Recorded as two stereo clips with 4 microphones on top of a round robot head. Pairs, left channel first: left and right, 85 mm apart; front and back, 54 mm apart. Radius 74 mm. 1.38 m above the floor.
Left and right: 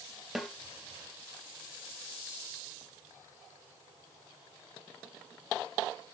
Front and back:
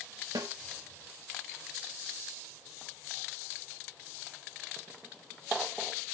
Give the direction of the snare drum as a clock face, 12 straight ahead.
6 o'clock.